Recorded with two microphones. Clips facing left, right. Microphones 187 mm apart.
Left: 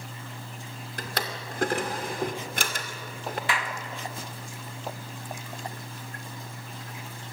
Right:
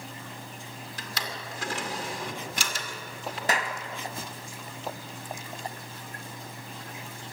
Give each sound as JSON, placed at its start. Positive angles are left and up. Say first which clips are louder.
{"t": 1.0, "sound": "a drawer", "louder": "left 5 dB", "side_deg": 55, "distance_m": 2.5}
{"t": 3.5, "sound": "a clap", "louder": "right 4 dB", "side_deg": -40, "distance_m": 1.8}